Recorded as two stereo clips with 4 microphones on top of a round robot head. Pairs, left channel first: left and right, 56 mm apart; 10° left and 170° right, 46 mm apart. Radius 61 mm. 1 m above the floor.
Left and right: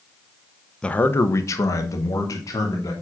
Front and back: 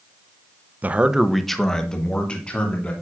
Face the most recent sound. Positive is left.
turn(degrees=70)